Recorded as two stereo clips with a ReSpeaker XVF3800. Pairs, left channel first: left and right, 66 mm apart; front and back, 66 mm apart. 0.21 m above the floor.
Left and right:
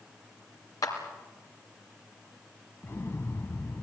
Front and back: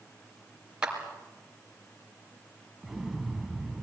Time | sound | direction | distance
0.8 | a clap | 105° left | 3 m
2.8 | an explosion | 100° left | 0.9 m